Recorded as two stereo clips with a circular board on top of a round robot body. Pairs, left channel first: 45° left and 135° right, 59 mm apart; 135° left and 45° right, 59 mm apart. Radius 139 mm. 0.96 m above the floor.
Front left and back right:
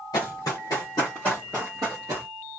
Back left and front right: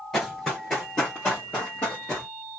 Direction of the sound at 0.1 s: 50° left.